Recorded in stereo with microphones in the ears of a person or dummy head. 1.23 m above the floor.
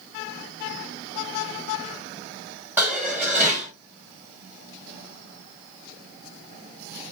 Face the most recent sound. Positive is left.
turn(degrees=-5)  # may be behind; listen again after turning